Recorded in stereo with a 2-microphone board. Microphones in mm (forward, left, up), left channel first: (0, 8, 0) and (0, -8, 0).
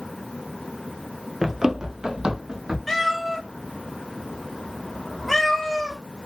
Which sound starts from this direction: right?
Running footsteps, at 1.4 s.